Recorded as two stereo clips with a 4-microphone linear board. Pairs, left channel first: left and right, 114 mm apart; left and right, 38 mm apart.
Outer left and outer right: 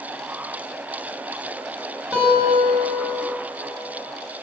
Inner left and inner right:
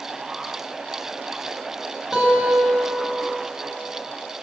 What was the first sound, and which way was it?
A guitar, 5° right (ahead or behind).